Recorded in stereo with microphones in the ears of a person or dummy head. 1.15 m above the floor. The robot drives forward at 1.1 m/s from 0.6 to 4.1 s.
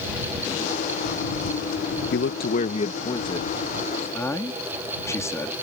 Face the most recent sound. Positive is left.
turn(degrees=20)  # may be behind; listen again after turning